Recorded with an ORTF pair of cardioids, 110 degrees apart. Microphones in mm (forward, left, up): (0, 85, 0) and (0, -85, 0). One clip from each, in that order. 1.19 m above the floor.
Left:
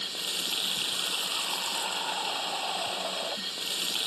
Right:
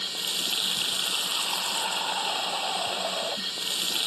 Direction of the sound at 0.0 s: 20° right.